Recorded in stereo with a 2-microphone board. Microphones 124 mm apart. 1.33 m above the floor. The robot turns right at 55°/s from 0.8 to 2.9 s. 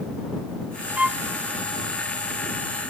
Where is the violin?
10° right (ahead or behind); by 1.2 s centre (ahead or behind).